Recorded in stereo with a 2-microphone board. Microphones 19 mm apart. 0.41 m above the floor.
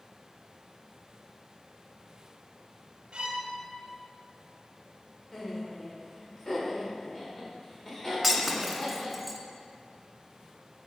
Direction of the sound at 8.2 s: 5° right (ahead or behind).